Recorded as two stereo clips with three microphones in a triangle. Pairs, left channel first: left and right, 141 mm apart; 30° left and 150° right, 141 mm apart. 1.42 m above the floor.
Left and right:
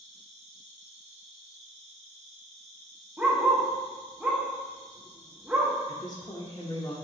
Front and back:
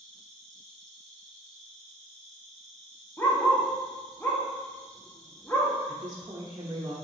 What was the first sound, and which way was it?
An insect, 55° right.